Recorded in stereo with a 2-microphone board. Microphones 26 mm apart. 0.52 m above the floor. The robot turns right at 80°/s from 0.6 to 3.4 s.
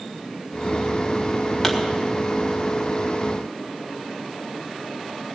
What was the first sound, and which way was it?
A pop, 10° left (ahead or behind).